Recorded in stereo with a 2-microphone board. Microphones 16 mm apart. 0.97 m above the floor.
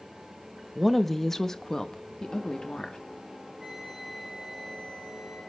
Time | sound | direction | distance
0.8 | a woman speaking | 5° right (ahead or behind) | 1.0 m
3.6 | a flute | 25° right (ahead or behind) | 6 m